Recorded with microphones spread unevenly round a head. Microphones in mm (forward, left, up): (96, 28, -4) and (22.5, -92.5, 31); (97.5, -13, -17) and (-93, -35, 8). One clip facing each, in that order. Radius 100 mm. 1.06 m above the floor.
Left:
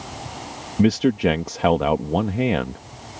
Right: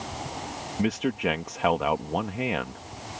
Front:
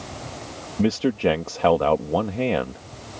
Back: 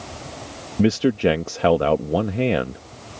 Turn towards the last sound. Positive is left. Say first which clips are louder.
# left 9 dB, back 3 dB
turn(degrees=110)